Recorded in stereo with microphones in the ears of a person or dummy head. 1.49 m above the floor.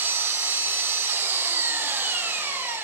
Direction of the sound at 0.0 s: 15° right (ahead or behind).